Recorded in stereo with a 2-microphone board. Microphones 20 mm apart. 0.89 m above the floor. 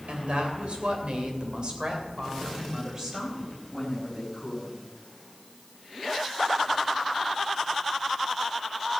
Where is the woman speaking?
80° right, 3 m; by 4.8 s 15° right (ahead or behind), 5.5 m.